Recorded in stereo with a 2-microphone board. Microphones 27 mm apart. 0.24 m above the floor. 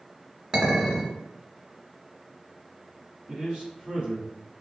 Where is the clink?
25° right (ahead or behind), 1.7 m.